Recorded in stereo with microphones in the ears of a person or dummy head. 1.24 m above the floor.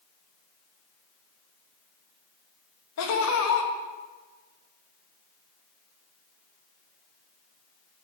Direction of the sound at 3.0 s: 75° left (ahead or behind).